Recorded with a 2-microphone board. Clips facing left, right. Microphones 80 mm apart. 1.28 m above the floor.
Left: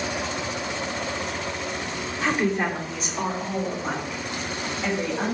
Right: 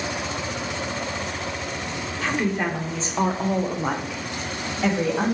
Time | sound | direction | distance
2.2 | a woman speaking | 15° left (ahead or behind) | 0.6 m